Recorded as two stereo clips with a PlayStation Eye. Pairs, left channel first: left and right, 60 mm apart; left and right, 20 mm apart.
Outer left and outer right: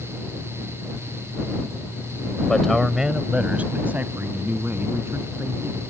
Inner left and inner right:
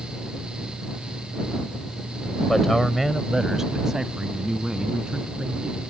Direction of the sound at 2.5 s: 10° left (ahead or behind).